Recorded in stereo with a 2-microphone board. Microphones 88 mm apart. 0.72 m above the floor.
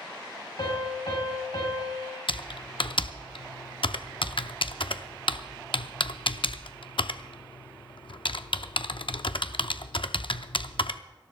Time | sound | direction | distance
0.6 | a piano | 65° left (ahead or behind) | 4.5 m
2.3 | typing on a keyboard | 75° left (ahead or behind) | 0.5 m